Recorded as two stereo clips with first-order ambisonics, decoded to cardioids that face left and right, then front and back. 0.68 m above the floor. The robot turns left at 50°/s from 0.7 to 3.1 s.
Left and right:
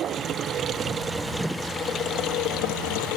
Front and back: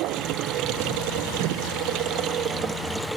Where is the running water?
145° right; by 3.2 s 95° left.